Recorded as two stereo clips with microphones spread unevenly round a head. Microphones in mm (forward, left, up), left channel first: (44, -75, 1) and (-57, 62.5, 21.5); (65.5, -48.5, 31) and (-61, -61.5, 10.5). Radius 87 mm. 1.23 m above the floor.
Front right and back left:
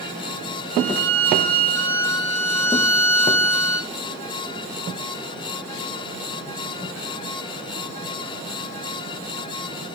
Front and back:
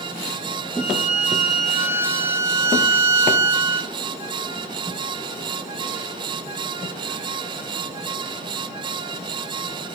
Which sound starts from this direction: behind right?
A violin, at 0.7 s.